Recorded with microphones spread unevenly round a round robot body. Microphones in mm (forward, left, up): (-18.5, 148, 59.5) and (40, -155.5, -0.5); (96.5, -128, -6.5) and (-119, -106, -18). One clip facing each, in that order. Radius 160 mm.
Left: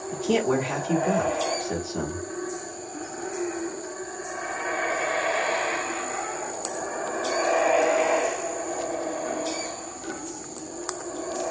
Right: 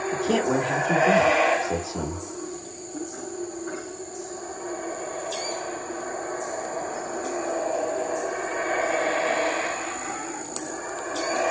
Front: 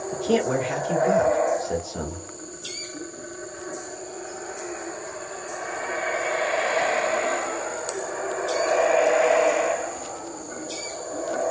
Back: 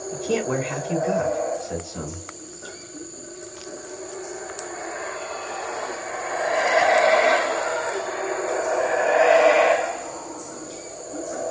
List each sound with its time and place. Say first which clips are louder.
0.1 s a man speaking: left 1 dB, front 2 dB; 10° right, 1.0 m